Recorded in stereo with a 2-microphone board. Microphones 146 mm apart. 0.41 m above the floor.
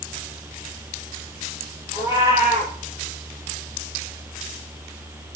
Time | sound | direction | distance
1.9 | a cat meowing | 20° right (ahead or behind) | 6 m